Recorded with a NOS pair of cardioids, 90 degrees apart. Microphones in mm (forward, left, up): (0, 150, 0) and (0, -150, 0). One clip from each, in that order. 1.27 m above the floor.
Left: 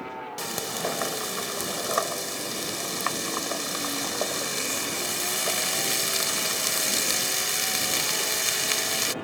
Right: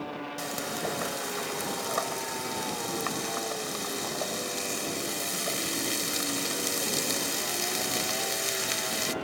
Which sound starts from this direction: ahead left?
Frying, at 0.4 s.